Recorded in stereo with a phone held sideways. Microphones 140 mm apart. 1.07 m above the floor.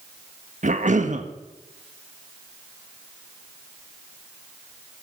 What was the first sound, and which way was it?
A cough, 60° right (ahead or behind).